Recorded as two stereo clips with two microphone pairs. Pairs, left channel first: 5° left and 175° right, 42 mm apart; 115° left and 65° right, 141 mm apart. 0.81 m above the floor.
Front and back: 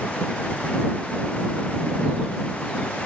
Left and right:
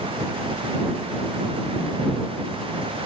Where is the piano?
No piano in this recording.